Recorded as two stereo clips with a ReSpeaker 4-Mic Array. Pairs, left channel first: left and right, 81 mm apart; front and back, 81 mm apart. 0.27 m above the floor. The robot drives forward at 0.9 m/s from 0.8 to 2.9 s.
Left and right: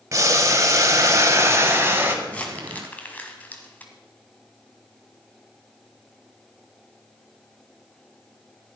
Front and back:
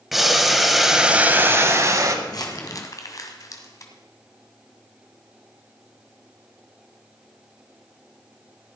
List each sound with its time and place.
0.1 s boiling: 95° right, 1.2 m; by 2.1 s 150° right, 1.7 m
2.2 s crumpling: 20° left, 2.5 m; by 3.9 s 25° left, 1.8 m